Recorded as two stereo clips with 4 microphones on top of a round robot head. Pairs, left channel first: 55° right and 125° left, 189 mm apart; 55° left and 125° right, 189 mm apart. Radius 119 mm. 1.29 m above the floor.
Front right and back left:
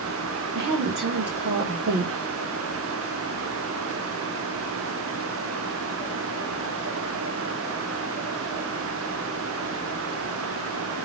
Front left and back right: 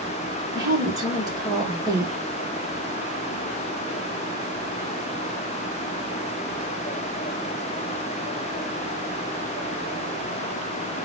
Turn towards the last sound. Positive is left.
turn(degrees=165)